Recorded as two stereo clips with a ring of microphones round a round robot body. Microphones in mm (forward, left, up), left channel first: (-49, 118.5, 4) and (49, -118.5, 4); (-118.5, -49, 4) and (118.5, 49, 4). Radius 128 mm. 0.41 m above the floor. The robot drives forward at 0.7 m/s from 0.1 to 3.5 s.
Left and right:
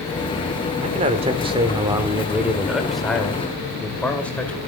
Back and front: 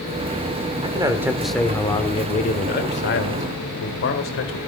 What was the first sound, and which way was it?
A man speaking, 30° right.